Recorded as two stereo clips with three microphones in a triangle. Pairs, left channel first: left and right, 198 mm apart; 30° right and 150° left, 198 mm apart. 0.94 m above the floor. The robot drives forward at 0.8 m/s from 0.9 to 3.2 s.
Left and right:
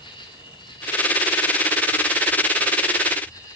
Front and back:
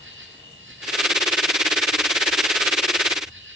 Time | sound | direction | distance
0.0 | an insect | 155° left | 6.5 m